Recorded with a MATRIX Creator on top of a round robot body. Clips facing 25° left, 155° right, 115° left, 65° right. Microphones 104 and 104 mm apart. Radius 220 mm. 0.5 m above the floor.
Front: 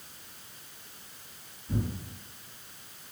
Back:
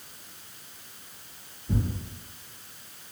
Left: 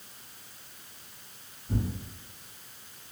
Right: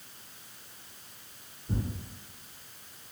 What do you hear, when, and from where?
1.7 s tearing paper: 120° right, 1.6 m